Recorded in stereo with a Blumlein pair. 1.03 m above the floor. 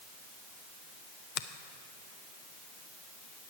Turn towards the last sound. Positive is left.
turn(degrees=40)